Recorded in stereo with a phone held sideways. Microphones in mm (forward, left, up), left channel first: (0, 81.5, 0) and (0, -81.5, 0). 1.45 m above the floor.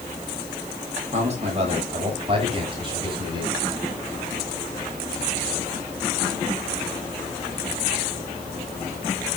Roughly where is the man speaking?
Right.